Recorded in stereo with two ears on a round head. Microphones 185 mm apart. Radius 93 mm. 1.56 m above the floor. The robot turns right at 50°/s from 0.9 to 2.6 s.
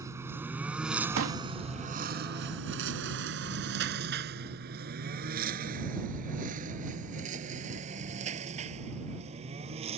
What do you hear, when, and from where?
0.0 s a lawn mower: 15° right (ahead or behind); by 10.0 s 30° right (ahead or behind)
1.2 s a pop: 75° right (ahead or behind); by 1.4 s 80° right